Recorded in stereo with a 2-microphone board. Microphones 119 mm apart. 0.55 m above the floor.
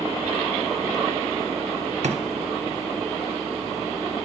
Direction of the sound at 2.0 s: 65° right (ahead or behind).